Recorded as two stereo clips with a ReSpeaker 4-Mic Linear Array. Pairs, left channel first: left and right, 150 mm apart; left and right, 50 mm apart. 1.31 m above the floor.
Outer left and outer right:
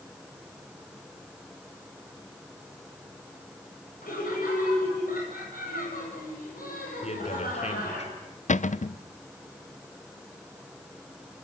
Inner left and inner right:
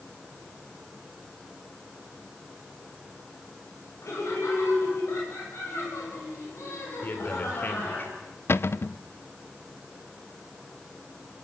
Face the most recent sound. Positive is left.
turn(degrees=55)  # may be behind; listen again after turning